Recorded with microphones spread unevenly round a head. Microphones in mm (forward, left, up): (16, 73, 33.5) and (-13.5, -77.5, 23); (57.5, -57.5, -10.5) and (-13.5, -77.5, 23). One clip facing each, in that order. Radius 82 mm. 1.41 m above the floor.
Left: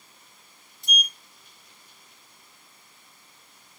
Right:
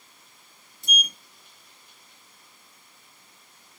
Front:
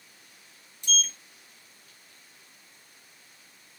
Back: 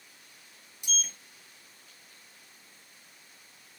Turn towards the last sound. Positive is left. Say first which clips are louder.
# even, front 6 dB
turn(degrees=-95)